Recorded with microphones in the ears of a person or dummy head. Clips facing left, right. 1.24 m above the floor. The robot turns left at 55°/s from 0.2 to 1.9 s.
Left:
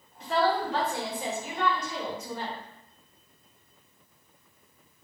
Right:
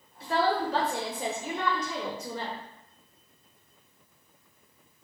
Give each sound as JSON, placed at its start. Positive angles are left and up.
{"t": 0.2, "sound": "a woman speaking", "azimuth_deg": -10, "distance_m": 0.7}